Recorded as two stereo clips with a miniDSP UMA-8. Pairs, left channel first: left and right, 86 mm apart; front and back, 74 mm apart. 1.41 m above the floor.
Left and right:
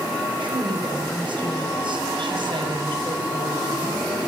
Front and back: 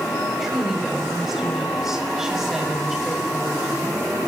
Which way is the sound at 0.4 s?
95° right.